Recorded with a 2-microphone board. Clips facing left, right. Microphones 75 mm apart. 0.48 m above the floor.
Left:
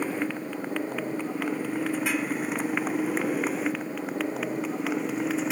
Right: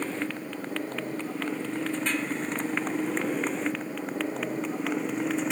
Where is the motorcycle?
10° left (ahead or behind); by 5.5 s 5° left (ahead or behind).